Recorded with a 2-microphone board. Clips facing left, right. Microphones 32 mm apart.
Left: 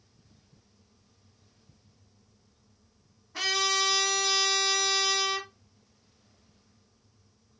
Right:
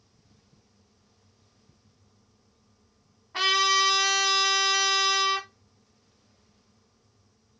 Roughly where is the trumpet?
Right.